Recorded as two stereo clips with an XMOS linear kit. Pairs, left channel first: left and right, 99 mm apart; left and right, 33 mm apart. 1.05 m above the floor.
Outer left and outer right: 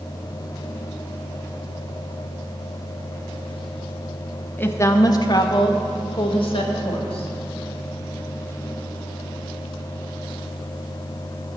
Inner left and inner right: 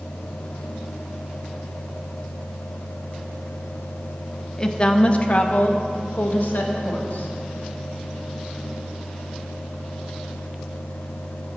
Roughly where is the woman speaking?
Centre.